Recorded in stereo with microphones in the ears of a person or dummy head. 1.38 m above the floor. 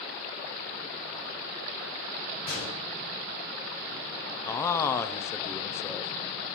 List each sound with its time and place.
2.5 s a gunshot: 55° left (ahead or behind), 6 m
4.4 s a man speaking: 10° left (ahead or behind), 0.6 m